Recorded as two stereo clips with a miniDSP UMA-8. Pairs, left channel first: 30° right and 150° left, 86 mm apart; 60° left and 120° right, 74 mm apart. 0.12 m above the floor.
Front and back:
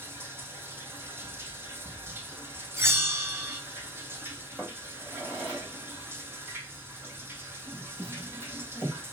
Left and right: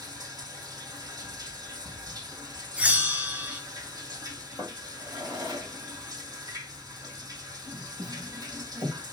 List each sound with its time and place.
0.0 s running water: 145° right, 2.5 m
2.8 s a bell: 175° right, 1.2 m
4.6 s a drawer: 130° right, 4.5 m